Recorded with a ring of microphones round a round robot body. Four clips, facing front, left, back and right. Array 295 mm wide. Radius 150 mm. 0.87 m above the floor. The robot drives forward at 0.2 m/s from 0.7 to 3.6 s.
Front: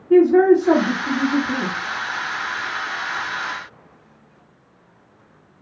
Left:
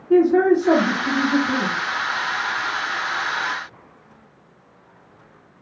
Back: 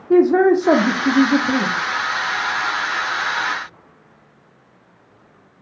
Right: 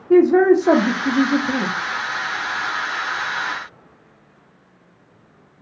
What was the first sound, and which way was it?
A man speaking, 145° right.